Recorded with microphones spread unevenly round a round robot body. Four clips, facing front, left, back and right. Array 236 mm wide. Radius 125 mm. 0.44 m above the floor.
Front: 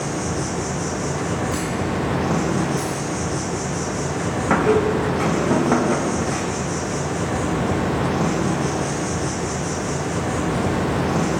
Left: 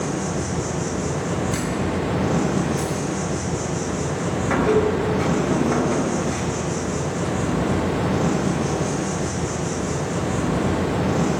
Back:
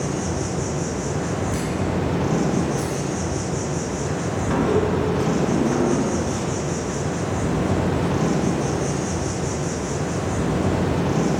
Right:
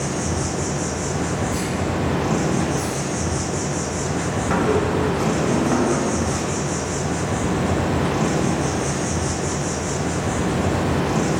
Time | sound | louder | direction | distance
0.0 | an insect | even, even | 50° right | 1.3 m
1.5 | a camera shutter | even, front 1 dB | 95° left | 1.6 m
4.5 | a squeak | left 1 dB, front 3 dB | straight ahead | 0.7 m